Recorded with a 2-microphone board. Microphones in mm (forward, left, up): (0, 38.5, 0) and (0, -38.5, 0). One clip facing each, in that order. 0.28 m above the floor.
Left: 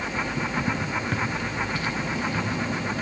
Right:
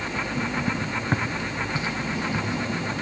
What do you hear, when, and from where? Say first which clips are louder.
1.1 s footsteps: right 1 dB; 30° right (ahead or behind), 1.1 m; by 3.0 s 20° right (ahead or behind), 3 m